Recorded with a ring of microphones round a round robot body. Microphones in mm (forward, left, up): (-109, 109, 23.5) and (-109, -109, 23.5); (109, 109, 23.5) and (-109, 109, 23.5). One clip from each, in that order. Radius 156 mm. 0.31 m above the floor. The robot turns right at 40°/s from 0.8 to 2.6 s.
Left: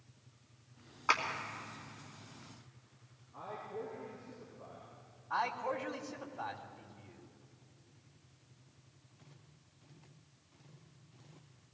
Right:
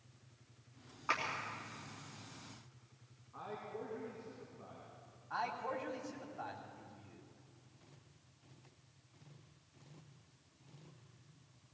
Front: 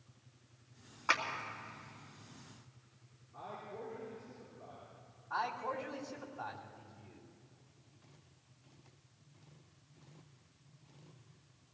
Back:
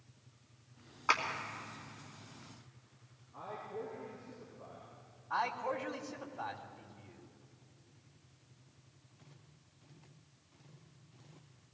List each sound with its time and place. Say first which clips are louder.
1.1 s a clap: left 5 dB, back 1 dB; 110° left, 3 m; by 1.2 s 115° left, 3 m
3.3 s a man speaking: left 2 dB, back 3 dB; 105° right, 4.5 m
5.3 s a man speaking: left 4 dB, back 2 dB; 150° left, 2.5 m